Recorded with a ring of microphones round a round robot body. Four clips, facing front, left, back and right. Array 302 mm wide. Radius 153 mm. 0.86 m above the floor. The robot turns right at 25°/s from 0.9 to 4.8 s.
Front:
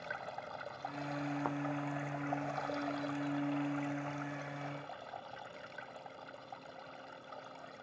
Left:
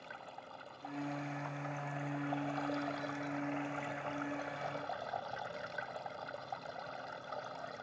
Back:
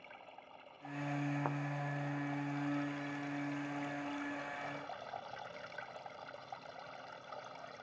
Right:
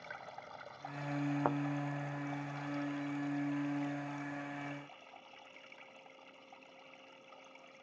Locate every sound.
0.0 s running water: 5° right; by 7.8 s 90° left
1.4 s a thud: 90° right; by 1.6 s 85° right